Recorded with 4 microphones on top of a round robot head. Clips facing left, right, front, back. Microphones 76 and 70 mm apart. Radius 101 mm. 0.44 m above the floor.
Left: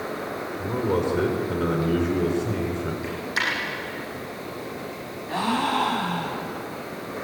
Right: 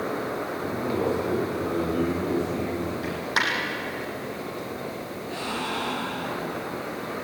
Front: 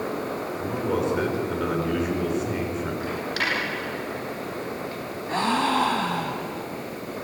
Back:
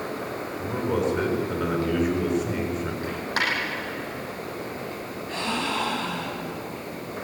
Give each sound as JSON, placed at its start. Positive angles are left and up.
{"t": 0.6, "sound": "a man speaking", "azimuth_deg": 85, "distance_m": 6.5}
{"t": 3.0, "sound": "a dropped coin", "azimuth_deg": -125, "distance_m": 6.5}
{"t": 5.3, "sound": "a gasp", "azimuth_deg": 45, "distance_m": 2.5}